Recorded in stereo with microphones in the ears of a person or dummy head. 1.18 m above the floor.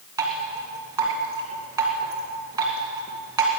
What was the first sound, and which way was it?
Dripping, 20° right (ahead or behind).